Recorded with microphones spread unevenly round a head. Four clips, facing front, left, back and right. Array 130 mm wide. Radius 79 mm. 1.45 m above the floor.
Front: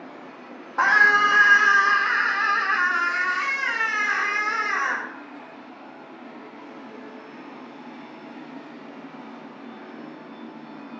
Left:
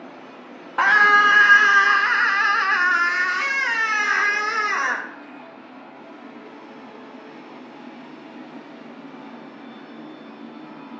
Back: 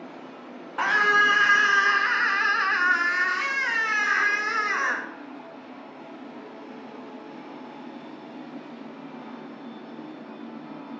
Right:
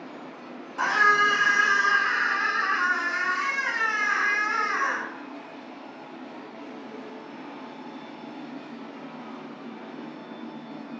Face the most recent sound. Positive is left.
turn(degrees=105)